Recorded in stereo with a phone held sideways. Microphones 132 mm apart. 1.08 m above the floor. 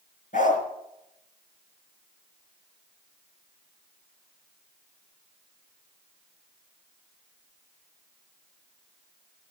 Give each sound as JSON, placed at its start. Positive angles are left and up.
{"t": 0.3, "sound": "a dog barking", "side_deg": 80, "distance_m": 4.0}